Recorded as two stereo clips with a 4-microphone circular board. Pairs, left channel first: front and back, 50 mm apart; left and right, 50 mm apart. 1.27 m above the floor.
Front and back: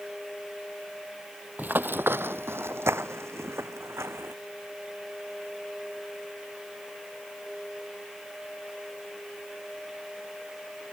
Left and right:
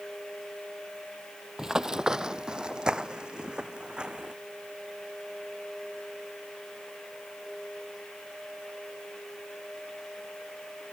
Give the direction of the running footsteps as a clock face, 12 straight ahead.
6 o'clock.